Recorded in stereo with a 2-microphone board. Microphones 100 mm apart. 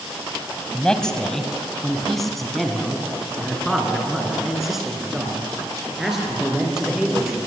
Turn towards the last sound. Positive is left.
turn(degrees=-5)  # may be behind; listen again after turning